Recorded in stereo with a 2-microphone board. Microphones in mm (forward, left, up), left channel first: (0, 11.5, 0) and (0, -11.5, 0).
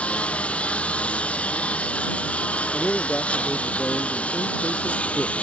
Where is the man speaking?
40° left (ahead or behind).